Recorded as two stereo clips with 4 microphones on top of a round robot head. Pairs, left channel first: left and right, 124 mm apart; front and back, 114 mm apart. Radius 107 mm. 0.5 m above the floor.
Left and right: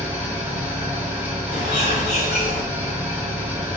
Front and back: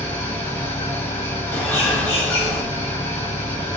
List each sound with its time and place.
0.0 s an engine running: 30° right, 1.0 m
1.5 s a bird: 70° left, 0.9 m